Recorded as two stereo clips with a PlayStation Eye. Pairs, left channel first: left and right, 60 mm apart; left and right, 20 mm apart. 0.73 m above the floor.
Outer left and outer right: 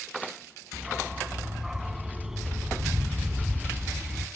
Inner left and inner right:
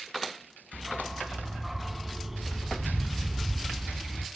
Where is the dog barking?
5° right (ahead or behind), 1.3 m.